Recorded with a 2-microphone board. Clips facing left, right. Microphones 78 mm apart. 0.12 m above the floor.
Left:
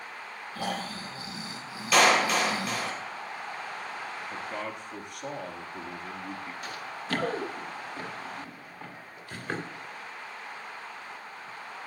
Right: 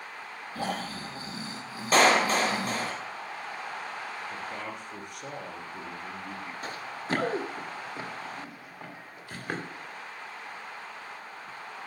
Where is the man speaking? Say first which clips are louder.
Left 1 dB; centre (ahead or behind), 2 m.